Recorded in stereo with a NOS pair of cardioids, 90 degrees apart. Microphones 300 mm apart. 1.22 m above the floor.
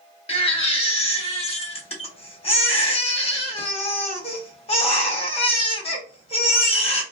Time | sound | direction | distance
0.3 | a baby crying | 20° left | 1.1 m